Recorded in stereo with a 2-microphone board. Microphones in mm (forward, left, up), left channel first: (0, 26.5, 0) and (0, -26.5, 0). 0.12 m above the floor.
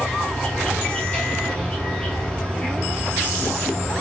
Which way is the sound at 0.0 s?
15° left (ahead or behind).